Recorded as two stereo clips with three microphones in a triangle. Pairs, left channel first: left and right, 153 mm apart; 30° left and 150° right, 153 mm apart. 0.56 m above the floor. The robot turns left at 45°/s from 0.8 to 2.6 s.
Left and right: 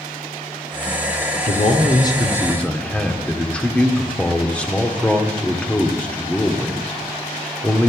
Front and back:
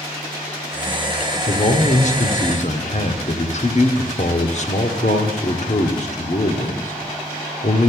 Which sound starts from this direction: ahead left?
A man speaking, at 1.5 s.